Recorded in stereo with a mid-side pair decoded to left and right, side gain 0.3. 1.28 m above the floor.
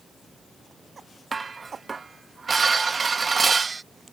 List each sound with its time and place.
1.3 s dishes clattering: 45° right